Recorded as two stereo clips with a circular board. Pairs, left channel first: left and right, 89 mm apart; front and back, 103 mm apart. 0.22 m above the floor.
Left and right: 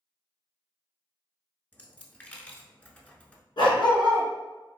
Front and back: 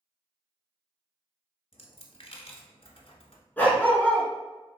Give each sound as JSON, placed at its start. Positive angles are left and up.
{"t": 1.7, "sound": "a dropped coin", "azimuth_deg": 15, "distance_m": 0.8}
{"t": 3.6, "sound": "a dog barking", "azimuth_deg": 70, "distance_m": 1.3}